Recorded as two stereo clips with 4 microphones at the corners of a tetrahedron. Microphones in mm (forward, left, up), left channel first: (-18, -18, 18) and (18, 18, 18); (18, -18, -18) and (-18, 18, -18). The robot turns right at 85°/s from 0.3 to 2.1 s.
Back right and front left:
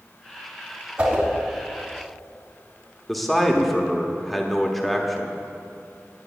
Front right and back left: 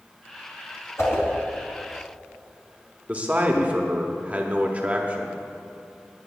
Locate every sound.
1.0 s a whoosh: 25° right, 2.5 m; by 1.2 s straight ahead, 2.5 m
3.1 s a man speaking: 140° left, 0.9 m